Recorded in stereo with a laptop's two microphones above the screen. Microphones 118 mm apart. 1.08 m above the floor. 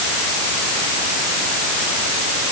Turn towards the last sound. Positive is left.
No sound to turn to.